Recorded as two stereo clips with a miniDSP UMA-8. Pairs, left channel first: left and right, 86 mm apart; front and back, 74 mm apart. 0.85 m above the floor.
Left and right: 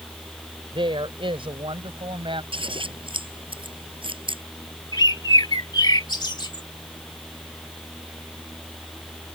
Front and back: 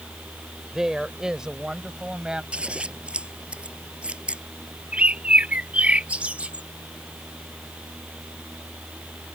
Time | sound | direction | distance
0.7 | a woman speaking | 95° right | ?
2.5 | scissors | 105° right | ?
4.9 | a bird | 110° left | ?